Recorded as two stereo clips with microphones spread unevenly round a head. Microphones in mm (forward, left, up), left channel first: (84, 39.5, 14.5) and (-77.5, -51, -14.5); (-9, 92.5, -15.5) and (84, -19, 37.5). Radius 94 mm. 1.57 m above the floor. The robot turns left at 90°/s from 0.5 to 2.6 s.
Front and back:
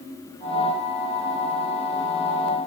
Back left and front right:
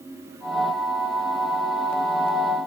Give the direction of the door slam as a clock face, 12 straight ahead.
I don't hear a door slam.